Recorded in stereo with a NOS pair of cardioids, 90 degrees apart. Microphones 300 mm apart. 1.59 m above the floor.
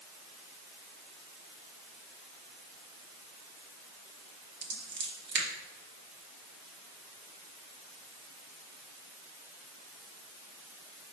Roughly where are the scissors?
Ahead right.